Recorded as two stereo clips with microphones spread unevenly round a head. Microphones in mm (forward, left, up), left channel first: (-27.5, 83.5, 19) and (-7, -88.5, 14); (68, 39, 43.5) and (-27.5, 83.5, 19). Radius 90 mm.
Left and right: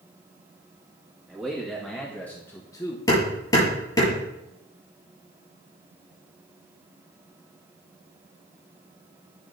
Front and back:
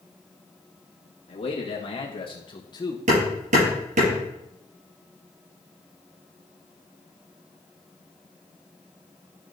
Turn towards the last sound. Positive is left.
turn(degrees=165)